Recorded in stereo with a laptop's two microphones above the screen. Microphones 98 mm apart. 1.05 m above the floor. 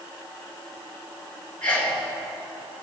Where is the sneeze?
10° left (ahead or behind), 3.5 m.